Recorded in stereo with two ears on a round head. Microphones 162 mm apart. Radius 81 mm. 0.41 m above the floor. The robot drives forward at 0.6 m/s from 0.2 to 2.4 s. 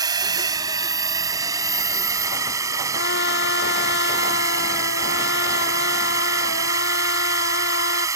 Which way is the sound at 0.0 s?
25° right (ahead or behind).